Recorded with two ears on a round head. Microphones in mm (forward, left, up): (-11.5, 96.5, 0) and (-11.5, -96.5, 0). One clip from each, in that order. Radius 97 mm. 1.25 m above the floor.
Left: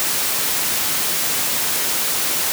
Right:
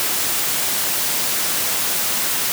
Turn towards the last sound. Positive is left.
No sound to turn to.